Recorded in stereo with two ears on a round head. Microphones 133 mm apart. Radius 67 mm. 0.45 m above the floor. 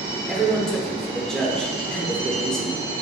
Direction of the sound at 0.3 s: 5° left (ahead or behind).